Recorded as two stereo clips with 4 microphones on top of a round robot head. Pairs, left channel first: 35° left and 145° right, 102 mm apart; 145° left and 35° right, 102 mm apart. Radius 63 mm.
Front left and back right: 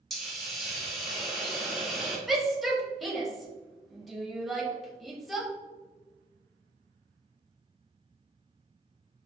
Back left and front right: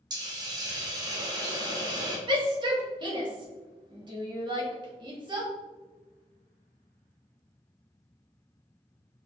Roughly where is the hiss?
Ahead right.